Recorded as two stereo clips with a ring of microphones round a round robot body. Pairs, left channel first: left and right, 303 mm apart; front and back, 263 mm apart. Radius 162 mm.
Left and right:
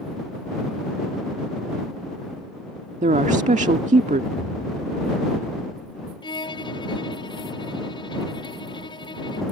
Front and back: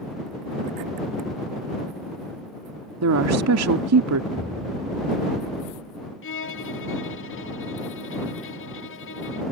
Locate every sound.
3.0 s a woman speaking: 155° right
4.3 s an explosion: 90° left
6.2 s a violin: 20° left